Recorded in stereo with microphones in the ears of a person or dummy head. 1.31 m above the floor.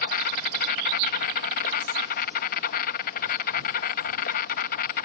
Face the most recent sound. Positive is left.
turn(degrees=50)  # may be behind; listen again after turning